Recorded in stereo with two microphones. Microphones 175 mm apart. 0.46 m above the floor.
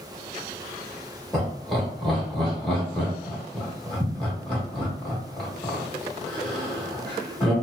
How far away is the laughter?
About 1.0 m.